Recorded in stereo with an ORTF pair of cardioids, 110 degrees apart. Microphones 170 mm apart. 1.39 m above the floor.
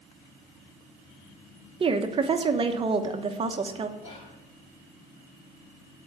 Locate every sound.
1.8 s a woman speaking: 35° right, 0.9 m
4.0 s whispering: 35° left, 4.5 m